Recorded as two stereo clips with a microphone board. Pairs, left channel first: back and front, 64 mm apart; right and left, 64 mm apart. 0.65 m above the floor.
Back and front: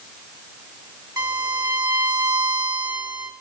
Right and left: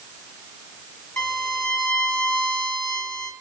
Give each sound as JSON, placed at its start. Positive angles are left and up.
{"t": 1.2, "sound": "a violin", "azimuth_deg": -25, "distance_m": 1.9}